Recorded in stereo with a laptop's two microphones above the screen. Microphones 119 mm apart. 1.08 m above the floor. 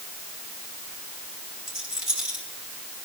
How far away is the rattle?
About 6 m.